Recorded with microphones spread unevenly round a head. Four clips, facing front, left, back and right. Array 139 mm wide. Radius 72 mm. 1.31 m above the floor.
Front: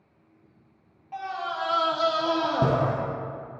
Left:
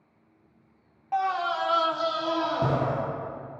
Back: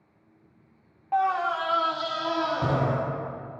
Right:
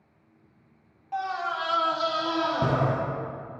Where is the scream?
140° left, 1.0 m; by 3.0 s straight ahead, 1.6 m.